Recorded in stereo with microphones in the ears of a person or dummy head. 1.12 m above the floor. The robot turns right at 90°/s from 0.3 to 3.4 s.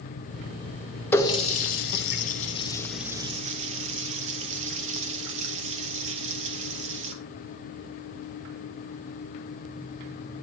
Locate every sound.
1.1 s a running tap: 15° left (ahead or behind), 0.6 m; by 7.2 s 35° right (ahead or behind), 0.6 m